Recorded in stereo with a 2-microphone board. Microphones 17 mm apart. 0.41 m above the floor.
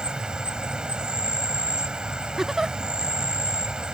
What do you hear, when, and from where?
0.0 s an insect: 70° right (ahead or behind)
2.4 s a giggle: 35° right (ahead or behind)